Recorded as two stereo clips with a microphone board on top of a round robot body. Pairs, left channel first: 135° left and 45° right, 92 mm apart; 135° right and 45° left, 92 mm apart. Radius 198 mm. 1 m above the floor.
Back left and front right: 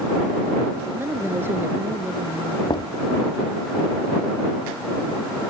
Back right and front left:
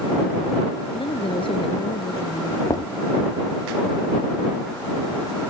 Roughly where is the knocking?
Behind.